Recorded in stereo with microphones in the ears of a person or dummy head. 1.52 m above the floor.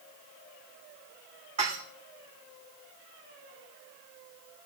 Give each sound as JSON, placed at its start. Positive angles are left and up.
{"t": 1.6, "sound": "dishes clattering", "side_deg": -40, "distance_m": 2.5}